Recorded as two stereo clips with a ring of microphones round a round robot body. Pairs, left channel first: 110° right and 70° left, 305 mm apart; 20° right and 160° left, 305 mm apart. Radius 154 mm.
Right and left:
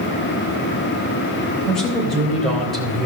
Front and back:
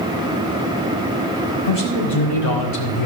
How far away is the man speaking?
About 3.5 m.